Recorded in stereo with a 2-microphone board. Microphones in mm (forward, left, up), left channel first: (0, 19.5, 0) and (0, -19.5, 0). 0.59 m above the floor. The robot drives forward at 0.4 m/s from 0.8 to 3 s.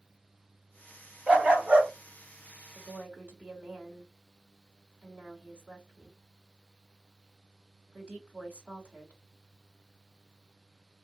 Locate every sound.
1.3 s a dog barking: 35° right (ahead or behind), 1.2 m; by 1.9 s 40° right (ahead or behind), 1.0 m
2.8 s a woman speaking: 40° right (ahead or behind), 2 m